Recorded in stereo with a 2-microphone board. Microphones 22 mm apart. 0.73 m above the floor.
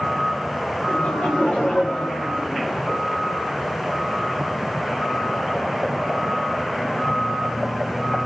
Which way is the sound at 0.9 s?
50° left (ahead or behind).